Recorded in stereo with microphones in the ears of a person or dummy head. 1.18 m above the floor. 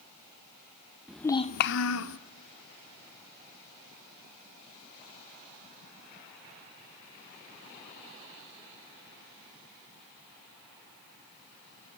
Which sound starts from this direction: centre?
A child speaking, at 1.1 s.